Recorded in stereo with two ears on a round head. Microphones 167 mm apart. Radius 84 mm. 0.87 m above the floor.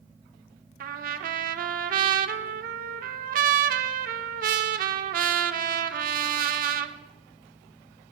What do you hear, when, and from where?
0.8 s a trumpet: 45° right (ahead or behind), 0.8 m